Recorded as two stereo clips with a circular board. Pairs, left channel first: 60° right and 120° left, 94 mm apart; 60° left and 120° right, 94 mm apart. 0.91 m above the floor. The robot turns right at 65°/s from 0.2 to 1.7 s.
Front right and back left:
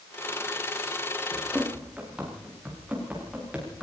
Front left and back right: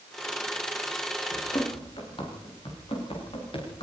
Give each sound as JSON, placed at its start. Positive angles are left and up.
{"t": 1.3, "sound": "running footsteps", "azimuth_deg": 20, "distance_m": 8.5}